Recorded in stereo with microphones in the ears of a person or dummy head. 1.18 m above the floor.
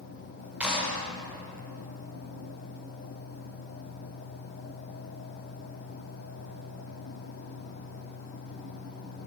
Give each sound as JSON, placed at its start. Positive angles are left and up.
{"t": 0.6, "sound": "a clap", "side_deg": -10, "distance_m": 3.5}